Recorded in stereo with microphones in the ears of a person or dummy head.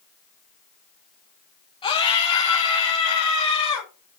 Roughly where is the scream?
Left.